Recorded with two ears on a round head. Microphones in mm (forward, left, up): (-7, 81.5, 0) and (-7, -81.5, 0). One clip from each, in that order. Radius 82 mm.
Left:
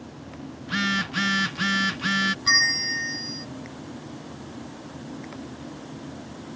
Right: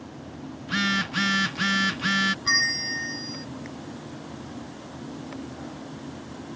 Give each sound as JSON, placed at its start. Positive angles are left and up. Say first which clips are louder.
{"t": 0.6, "sound": "a phone buzzing", "louder": "even", "side_deg": -5}
{"t": 2.5, "sound": "a bell", "louder": "left 3 dB", "side_deg": 15}